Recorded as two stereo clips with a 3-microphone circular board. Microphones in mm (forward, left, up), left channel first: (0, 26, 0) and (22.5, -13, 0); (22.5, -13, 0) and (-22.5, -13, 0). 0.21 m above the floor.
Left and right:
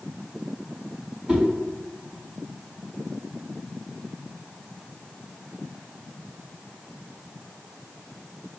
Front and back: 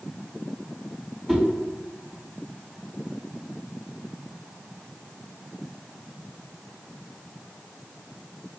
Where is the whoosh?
85° right, 1.4 m.